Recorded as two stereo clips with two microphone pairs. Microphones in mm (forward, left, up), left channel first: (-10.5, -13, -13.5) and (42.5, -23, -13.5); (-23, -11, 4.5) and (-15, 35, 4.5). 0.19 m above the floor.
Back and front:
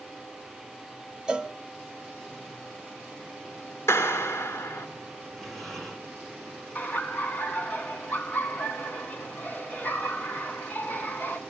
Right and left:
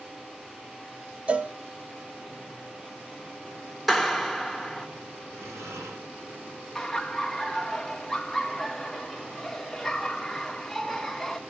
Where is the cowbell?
45° left, 0.5 m.